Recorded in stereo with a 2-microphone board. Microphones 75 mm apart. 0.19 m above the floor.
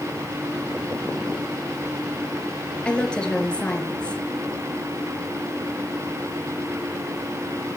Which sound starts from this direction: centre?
A woman speaking, at 2.9 s.